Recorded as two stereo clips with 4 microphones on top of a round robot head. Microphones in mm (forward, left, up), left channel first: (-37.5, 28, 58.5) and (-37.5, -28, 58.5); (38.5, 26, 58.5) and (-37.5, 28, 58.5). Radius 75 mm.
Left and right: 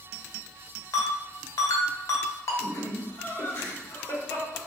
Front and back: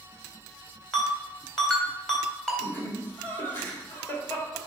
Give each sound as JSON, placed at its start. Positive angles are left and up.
{"t": 0.9, "sound": "a ringtone", "azimuth_deg": 80, "distance_m": 2.5}
{"t": 2.6, "sound": "laughter", "azimuth_deg": 60, "distance_m": 2.0}